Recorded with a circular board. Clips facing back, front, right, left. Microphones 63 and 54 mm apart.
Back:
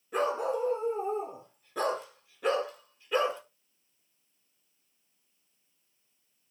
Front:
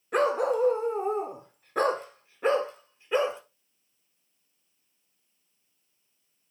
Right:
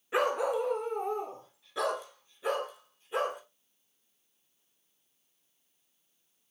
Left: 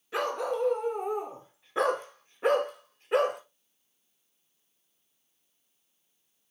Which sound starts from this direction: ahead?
A dog barking, at 0.1 s.